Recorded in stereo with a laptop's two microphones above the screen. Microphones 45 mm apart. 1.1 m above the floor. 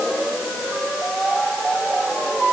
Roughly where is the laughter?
I don't hear laughter.